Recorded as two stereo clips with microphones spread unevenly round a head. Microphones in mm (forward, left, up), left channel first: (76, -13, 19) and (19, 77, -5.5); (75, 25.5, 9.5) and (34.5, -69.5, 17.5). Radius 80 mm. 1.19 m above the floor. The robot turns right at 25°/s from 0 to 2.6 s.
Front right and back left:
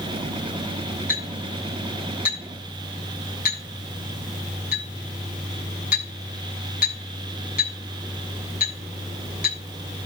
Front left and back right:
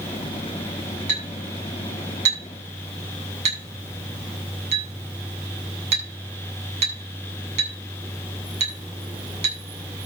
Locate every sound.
1.1 s a clink: 140° right, 8 m; by 9.6 s 105° right, 8 m